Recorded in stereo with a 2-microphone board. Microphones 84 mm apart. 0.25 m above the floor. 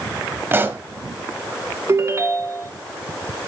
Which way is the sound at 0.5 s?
25° right (ahead or behind).